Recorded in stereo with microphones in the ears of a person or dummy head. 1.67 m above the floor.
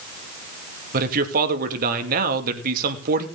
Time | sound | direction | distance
0.9 | a man speaking | 55° right (ahead or behind) | 2.5 m